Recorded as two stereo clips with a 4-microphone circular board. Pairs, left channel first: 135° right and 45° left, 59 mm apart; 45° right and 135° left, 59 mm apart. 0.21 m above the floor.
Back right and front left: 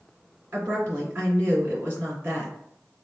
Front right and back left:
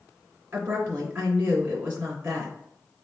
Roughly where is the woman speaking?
Left.